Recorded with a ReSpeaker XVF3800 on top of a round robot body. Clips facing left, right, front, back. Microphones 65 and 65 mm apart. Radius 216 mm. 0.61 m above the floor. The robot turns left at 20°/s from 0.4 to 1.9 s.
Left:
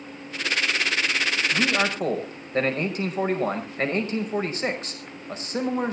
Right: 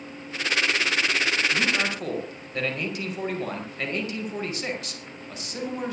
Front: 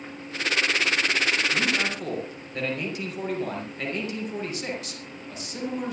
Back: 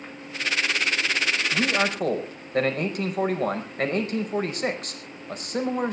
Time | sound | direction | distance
1.5 | a man speaking | 150° left | 5.5 m